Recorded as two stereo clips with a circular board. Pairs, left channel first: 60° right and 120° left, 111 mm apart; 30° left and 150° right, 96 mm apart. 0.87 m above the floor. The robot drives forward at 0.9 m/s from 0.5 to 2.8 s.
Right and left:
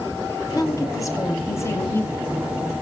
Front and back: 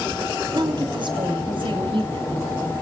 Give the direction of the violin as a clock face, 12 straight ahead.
I don't hear a violin.